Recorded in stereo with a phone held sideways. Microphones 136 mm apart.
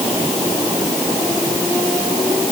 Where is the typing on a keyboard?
I don't hear typing on a keyboard.